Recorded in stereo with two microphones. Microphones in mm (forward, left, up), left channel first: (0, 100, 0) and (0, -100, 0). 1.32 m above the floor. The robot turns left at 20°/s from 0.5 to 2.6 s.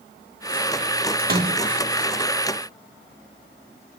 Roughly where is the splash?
Right.